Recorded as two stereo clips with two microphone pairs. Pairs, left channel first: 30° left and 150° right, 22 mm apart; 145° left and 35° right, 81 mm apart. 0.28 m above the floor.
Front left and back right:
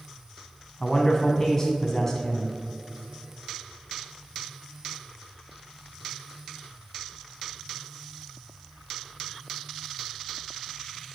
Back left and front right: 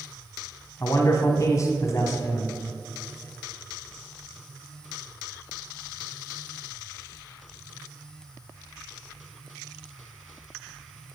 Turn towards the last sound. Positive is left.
turn(degrees=105)